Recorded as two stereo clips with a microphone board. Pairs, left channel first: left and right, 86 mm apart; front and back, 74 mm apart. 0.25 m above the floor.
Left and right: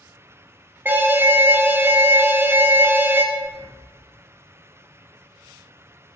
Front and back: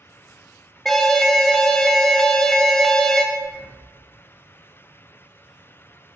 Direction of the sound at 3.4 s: 90° right.